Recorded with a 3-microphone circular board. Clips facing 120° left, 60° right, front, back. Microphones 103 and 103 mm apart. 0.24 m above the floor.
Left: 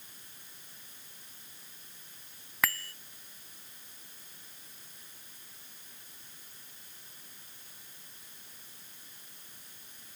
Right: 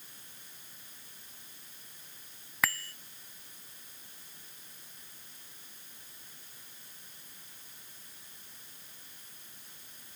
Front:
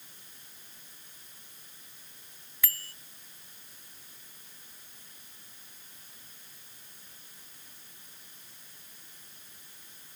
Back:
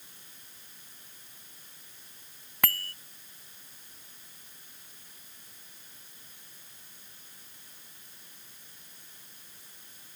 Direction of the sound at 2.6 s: 150° right.